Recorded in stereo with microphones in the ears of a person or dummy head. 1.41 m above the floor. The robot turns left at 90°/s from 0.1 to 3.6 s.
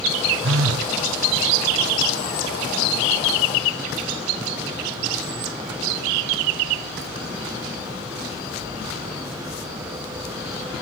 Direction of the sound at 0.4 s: 65° right.